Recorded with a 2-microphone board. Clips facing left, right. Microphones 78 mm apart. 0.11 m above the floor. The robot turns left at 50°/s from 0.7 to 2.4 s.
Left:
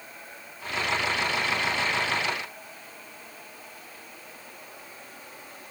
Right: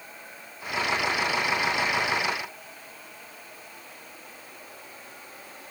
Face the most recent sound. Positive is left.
No sound to turn to.